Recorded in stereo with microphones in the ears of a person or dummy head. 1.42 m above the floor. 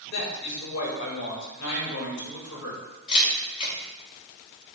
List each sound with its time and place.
0.1 s a man speaking: 85° left, 2.5 m
3.1 s a camera shutter: 35° left (ahead or behind), 2.5 m